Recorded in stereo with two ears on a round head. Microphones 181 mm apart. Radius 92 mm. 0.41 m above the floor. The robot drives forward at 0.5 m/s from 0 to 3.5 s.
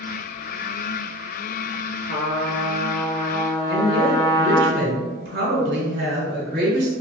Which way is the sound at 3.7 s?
55° right (ahead or behind).